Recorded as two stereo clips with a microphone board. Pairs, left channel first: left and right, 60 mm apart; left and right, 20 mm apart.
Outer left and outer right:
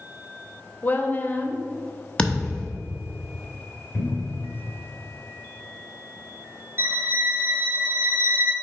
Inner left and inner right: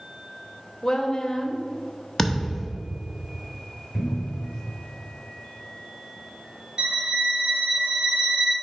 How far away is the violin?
About 1.9 m.